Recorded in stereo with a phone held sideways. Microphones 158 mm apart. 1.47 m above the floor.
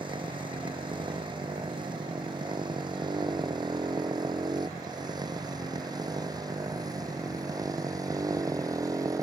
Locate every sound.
0.0 s a motorcycle: 30° right (ahead or behind); by 9.2 s 20° right (ahead or behind)